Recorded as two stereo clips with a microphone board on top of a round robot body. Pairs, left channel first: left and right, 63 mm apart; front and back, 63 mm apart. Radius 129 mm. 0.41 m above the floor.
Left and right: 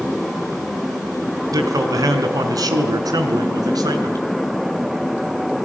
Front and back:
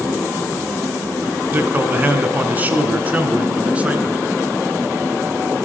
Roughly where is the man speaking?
Behind right.